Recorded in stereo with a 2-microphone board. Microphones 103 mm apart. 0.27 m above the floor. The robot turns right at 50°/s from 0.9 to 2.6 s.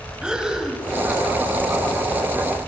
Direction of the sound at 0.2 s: 5° right (ahead or behind).